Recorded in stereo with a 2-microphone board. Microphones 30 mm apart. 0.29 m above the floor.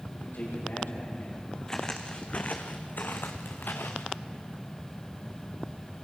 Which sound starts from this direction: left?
A man speaking, at 0.1 s.